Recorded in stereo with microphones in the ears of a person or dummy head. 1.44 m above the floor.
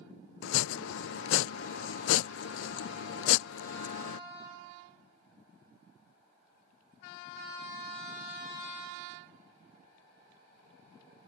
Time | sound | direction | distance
0.4 | chopping | 80° left | ?